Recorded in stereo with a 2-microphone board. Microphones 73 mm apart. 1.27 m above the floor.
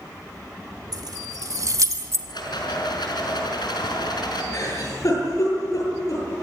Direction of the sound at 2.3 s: 80° left.